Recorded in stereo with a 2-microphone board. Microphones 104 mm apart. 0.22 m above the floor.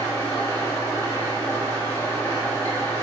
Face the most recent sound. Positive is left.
turn(degrees=30)  # may be behind; listen again after turning